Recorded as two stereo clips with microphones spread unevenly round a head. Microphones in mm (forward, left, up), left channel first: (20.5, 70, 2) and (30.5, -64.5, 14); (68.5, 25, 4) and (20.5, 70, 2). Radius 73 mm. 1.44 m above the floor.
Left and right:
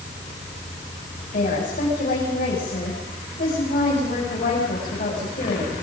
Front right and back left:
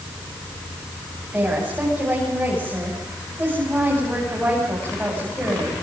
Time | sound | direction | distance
1.3 | a woman speaking | 65° left | 8.5 m